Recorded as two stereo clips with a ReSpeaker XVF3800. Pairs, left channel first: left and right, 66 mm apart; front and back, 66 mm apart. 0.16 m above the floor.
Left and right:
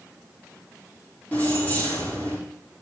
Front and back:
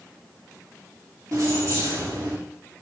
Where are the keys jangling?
150° left, 4 m.